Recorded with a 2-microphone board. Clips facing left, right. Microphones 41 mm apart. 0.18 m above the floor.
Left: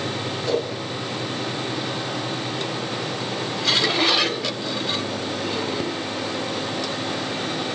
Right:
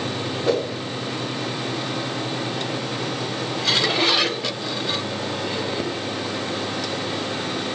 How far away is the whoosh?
About 7.5 m.